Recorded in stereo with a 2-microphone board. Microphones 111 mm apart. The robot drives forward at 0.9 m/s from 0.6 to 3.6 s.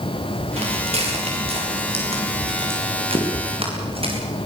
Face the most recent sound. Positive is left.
turn(degrees=-55)  # may be behind; listen again after turning